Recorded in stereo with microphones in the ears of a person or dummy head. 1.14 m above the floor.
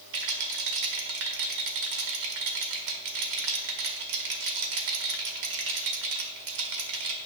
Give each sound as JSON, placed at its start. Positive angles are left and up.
{"t": 0.1, "sound": "a rattle", "side_deg": -60, "distance_m": 1.6}